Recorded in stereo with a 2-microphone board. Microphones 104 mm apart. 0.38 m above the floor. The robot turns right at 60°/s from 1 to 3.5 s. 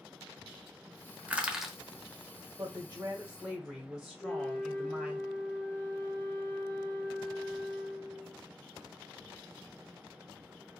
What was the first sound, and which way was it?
Crushing, 15° right (ahead or behind).